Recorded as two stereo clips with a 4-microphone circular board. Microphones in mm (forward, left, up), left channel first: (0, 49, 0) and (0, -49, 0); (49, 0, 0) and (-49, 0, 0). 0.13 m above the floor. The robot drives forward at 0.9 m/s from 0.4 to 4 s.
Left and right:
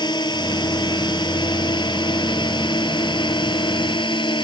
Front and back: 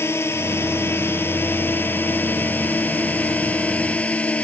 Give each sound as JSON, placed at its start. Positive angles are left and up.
{"t": 0.0, "sound": "a drone", "azimuth_deg": 60}